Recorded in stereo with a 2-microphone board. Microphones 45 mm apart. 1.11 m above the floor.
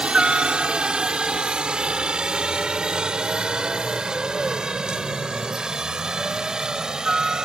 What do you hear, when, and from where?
0.0 s a helicopter: 25° right (ahead or behind); by 7.5 s 15° right (ahead or behind)